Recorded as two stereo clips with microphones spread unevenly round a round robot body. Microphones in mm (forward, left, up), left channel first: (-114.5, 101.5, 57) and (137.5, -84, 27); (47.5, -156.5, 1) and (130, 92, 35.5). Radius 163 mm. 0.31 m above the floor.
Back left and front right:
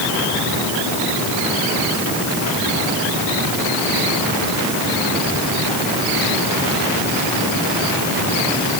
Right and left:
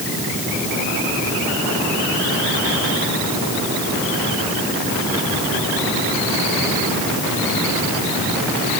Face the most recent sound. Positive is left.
No sound to turn to.